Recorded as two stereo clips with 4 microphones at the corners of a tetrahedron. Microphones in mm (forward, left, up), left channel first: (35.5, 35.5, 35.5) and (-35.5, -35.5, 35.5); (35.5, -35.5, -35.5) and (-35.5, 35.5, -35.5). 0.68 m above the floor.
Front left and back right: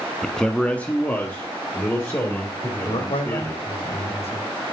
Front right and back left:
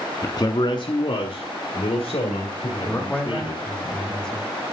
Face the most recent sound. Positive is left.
turn(degrees=35)